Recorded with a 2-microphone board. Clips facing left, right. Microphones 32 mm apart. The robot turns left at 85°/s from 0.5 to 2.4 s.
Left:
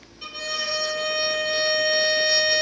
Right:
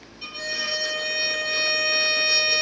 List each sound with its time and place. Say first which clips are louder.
0.2 s a violin: even; 5° left, 1.0 m; by 2.6 s 155° right, 1.0 m